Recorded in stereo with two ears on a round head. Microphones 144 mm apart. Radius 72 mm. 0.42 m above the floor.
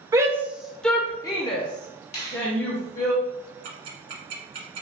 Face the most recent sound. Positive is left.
turn(degrees=-65)  # may be behind; listen again after turning